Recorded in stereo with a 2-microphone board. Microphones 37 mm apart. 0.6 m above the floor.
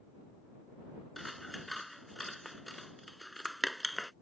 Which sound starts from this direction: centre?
Scissors, at 1.2 s.